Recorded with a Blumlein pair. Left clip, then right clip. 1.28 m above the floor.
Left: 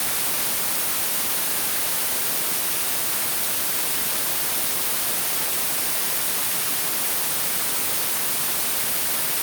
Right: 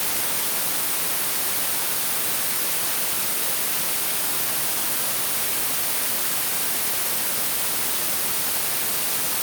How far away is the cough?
I don't hear a cough.